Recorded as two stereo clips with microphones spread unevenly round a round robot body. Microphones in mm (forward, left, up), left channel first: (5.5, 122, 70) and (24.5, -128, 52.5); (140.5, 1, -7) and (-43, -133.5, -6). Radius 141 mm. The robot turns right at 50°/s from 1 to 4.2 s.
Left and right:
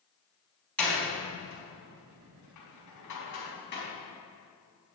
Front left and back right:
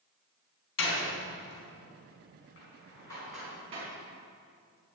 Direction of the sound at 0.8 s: 10° left.